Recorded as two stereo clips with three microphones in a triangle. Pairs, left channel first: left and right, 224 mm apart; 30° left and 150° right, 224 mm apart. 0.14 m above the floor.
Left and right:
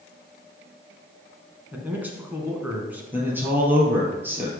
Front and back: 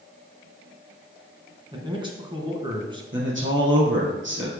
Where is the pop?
I don't hear a pop.